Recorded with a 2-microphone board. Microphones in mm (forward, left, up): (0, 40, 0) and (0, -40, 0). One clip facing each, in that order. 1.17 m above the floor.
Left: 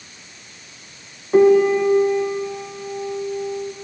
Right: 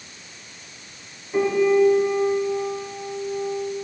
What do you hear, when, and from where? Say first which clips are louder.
1.3 s a piano: left 5 dB; 60° left (ahead or behind), 1.2 m